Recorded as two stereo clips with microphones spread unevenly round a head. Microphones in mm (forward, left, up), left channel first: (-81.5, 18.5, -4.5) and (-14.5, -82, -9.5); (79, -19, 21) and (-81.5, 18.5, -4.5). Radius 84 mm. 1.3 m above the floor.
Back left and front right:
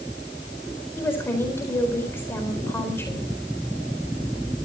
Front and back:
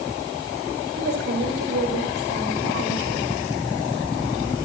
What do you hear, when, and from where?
1.0 s a woman speaking: 165° right, 4 m